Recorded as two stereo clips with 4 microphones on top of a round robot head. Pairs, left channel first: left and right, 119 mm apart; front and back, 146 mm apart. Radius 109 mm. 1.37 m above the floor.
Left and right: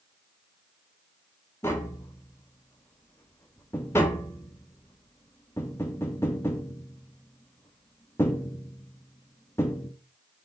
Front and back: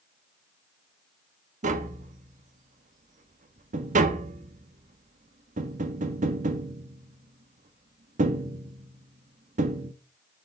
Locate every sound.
1.6 s tapping: 165° left, 1.0 m